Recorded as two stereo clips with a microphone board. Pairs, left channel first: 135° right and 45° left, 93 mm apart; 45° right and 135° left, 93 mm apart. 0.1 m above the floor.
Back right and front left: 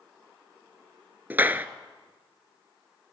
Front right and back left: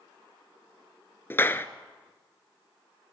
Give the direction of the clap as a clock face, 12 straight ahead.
12 o'clock.